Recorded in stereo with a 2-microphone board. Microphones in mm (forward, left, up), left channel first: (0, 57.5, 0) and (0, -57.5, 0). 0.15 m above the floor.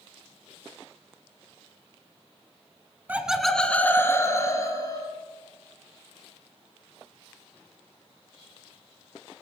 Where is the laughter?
15° right (ahead or behind), 1.1 m; by 5.1 s 30° left (ahead or behind), 3 m.